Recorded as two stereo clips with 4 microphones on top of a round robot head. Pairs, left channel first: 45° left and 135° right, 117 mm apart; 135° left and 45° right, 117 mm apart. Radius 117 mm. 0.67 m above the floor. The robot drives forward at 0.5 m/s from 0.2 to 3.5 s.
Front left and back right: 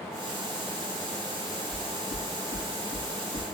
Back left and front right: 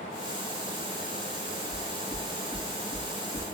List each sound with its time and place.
1.7 s knocking: 70° left, 5 m; by 3.5 s 85° left, 4.5 m